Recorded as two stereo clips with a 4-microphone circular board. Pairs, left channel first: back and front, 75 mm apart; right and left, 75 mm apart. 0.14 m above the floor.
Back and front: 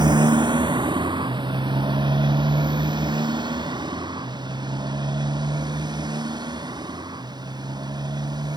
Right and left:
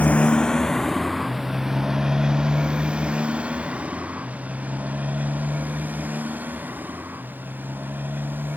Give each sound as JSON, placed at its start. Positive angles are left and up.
{"t": 0.0, "sound": "a motorcycle", "azimuth_deg": -20}